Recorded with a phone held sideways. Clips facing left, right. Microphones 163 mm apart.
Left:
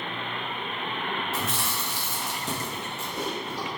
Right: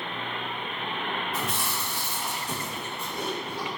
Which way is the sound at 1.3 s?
75° left (ahead or behind).